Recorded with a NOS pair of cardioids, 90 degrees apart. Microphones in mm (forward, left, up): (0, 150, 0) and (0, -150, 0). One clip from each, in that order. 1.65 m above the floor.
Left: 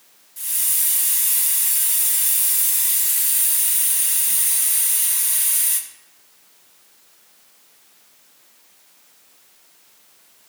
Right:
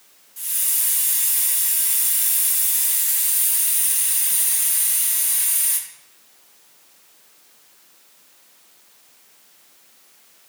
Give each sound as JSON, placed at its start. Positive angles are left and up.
{"t": 0.4, "sound": "a hiss", "azimuth_deg": 10, "distance_m": 1.9}